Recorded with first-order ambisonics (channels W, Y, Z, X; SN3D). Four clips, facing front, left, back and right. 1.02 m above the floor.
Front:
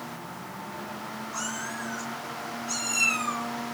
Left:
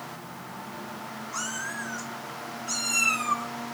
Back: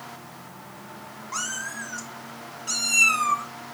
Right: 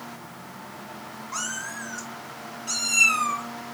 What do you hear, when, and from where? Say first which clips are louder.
1.3 s a cat meowing: right 1 dB, back 4 dB; 145° right, 2.5 m